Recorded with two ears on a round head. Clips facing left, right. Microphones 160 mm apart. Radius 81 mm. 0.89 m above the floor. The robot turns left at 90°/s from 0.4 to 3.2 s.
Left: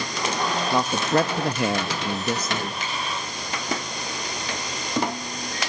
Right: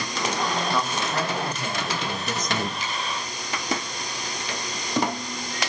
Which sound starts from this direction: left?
A finger snap, at 2.8 s.